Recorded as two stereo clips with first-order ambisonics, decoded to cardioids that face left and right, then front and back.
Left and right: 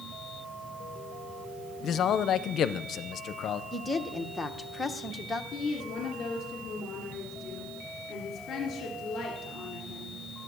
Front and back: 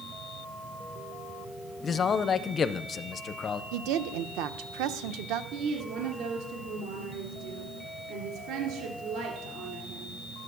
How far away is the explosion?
No explosion in this recording.